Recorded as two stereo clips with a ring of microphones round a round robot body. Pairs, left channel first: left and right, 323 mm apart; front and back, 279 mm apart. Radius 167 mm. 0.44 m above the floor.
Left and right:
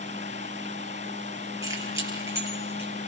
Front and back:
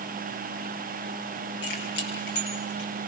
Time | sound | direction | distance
1.6 | keys jangling | 10° right | 8 m